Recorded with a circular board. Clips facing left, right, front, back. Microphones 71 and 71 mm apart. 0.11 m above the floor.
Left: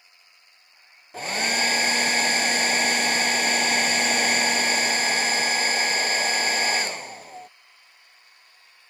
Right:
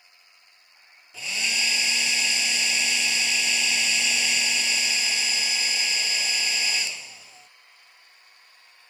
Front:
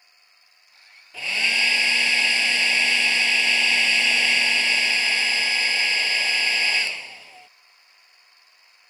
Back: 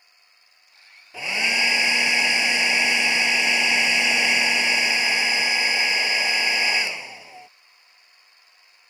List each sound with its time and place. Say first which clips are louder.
1.1 s a hair dryer: left 5 dB, back 1 dB; 115° left